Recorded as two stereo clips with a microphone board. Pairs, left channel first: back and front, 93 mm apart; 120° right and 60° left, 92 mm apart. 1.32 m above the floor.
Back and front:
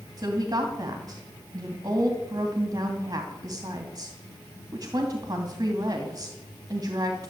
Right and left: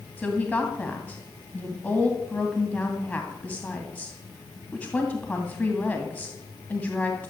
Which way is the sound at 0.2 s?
50° right.